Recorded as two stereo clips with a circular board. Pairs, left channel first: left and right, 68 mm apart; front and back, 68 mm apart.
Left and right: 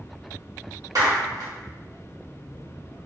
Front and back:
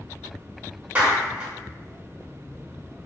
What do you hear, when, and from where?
0.9 s a clap: 120° right, 1.3 m